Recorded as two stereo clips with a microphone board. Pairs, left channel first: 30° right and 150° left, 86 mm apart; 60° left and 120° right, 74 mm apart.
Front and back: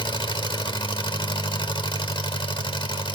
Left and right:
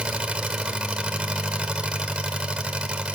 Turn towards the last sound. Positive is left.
turn(degrees=-45)